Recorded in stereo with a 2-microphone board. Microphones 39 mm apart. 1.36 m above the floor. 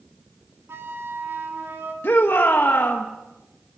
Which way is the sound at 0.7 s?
75° right (ahead or behind).